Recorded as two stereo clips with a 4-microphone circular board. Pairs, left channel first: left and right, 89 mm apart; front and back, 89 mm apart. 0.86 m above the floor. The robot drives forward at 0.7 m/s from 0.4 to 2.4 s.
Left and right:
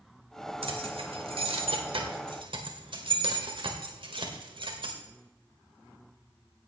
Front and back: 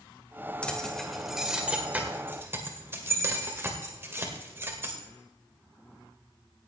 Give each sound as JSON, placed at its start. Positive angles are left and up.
{"t": 0.6, "sound": "keys jangling", "azimuth_deg": -80, "distance_m": 1.9}